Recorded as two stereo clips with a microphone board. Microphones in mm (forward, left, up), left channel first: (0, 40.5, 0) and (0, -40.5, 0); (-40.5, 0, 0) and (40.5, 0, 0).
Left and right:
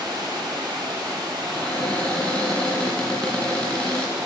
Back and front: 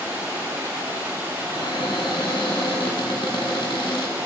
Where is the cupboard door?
170° left, 3.5 m.